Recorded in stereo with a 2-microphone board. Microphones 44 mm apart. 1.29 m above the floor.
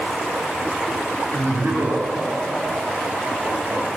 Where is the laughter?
85° right, 7.5 m; by 3.8 s 90° right, 10 m.